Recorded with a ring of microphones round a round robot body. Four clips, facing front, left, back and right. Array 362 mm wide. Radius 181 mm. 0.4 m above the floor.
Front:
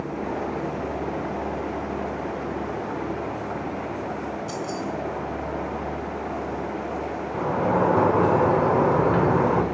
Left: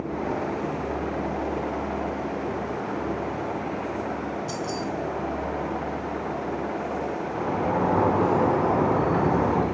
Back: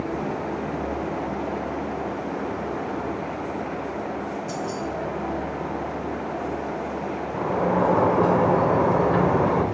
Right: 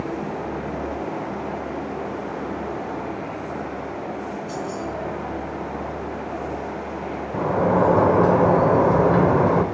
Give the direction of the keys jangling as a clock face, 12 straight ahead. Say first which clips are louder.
Right 1 dB, back 1 dB; 10 o'clock.